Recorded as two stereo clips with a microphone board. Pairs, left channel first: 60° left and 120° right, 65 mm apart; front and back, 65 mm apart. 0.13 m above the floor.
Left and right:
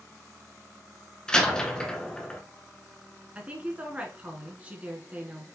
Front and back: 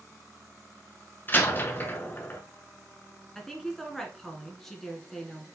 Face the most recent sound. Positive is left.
turn(degrees=-80)